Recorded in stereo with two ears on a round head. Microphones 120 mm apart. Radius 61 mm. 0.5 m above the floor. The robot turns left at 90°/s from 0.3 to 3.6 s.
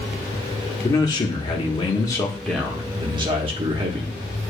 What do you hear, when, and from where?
0.8 s a man speaking: 150° left, 1.0 m; by 4.5 s 95° right, 1.0 m